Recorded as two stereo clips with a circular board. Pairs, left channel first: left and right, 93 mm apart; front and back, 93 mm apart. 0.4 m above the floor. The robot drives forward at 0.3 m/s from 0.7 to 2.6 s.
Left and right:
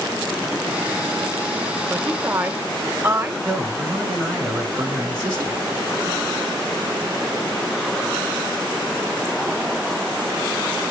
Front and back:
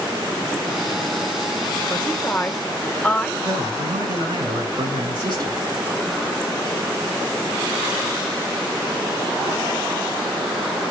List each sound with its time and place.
1.9 s a woman speaking: 40° right, 0.9 m; by 3.3 s 65° right, 0.8 m
3.4 s a man speaking: 150° right, 4.5 m